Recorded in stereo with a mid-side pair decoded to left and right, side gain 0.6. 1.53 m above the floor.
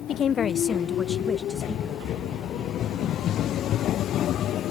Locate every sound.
0.1 s a woman speaking: 50° left; by 2.0 s 5° right